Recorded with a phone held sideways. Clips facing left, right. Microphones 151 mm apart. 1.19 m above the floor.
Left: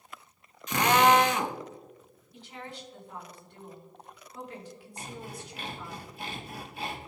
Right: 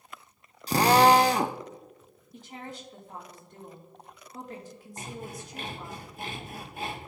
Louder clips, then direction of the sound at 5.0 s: Right 2 dB; 50° right (ahead or behind).